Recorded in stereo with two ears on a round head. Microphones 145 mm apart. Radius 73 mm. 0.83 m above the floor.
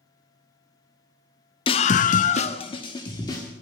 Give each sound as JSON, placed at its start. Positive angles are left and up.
{"t": 1.7, "sound": "a scream", "side_deg": 30, "distance_m": 0.6}